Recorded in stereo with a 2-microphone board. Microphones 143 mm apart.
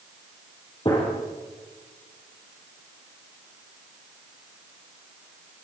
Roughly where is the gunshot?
Left.